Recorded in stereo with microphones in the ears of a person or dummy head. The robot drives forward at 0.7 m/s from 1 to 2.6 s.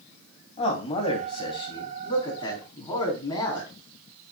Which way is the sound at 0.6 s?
35° left (ahead or behind).